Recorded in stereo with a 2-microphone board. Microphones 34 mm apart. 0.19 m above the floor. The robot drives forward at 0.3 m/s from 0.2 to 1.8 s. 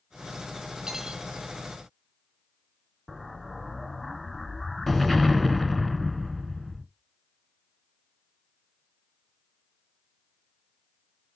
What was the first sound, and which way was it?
Cutlery clinking, 15° right (ahead or behind).